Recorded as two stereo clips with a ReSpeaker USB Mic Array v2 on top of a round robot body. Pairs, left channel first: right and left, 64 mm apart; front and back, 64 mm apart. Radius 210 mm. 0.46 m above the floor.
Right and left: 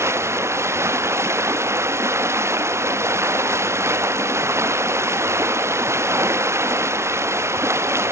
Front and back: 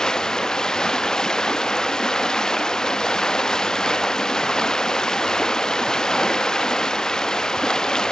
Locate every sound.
0.0 s running water: 75° left, 0.9 m